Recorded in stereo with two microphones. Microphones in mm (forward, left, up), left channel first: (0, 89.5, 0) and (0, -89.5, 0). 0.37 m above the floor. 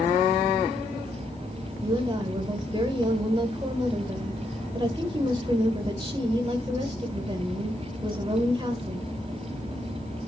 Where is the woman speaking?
25° right (ahead or behind), 1.0 m.